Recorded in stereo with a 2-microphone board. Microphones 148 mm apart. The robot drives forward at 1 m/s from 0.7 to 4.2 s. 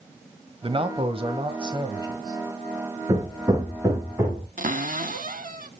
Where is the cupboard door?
70° right (ahead or behind), 0.7 m.